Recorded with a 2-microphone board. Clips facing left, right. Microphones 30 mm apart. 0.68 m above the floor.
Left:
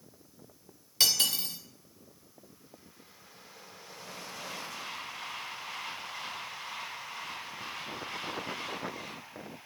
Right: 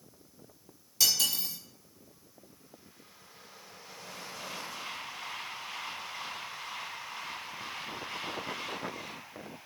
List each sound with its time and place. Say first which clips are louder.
1.0 s cutlery clinking: left 1 dB; 40° left (ahead or behind), 0.6 m